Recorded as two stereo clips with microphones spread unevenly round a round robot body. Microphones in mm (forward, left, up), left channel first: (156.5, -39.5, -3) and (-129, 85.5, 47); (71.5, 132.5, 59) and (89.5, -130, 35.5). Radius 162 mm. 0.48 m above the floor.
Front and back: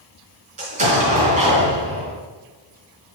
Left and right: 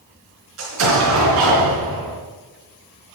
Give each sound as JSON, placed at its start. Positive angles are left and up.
{"t": 0.6, "sound": "an explosion", "azimuth_deg": -135, "distance_m": 4.0}